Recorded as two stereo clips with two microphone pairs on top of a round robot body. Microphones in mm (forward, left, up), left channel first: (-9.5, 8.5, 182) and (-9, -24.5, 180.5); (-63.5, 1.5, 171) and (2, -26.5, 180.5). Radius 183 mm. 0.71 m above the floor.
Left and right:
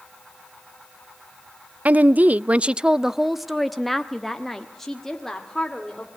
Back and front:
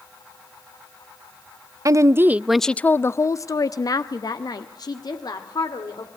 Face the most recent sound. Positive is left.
turn(degrees=165)